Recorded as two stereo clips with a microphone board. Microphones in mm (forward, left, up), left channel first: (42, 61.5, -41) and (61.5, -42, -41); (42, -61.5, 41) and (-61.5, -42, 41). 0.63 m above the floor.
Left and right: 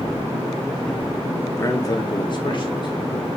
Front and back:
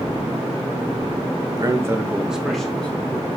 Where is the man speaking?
150° left, 0.6 m; by 3.3 s 60° left, 1.1 m.